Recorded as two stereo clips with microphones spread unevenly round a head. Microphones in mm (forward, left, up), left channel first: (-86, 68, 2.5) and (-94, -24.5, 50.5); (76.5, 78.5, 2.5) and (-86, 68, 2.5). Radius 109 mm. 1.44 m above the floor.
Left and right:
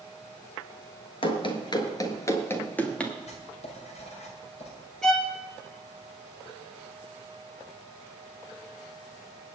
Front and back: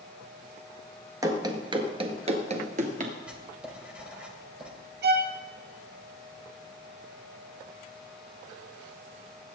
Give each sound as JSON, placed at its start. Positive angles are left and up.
{"t": 1.2, "sound": "running footsteps", "azimuth_deg": 125, "distance_m": 1.7}
{"t": 3.3, "sound": "writing", "azimuth_deg": 100, "distance_m": 3.0}
{"t": 5.0, "sound": "a violin", "azimuth_deg": 165, "distance_m": 1.9}